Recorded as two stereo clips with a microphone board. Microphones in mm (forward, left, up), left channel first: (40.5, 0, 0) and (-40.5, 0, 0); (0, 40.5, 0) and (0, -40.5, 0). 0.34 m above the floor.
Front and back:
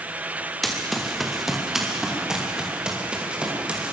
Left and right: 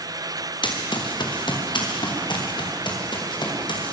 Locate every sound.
0.6 s running footsteps: 90° left, 3.5 m; by 3.9 s 105° left, 5.5 m